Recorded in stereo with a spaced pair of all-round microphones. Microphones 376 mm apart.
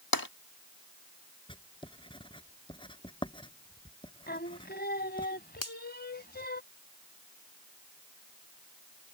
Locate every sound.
0.1 s tapping: 65° left (ahead or behind)
1.5 s writing: 15° left (ahead or behind)
4.3 s singing: 25° left (ahead or behind)
5.6 s a finger snap: 55° left (ahead or behind)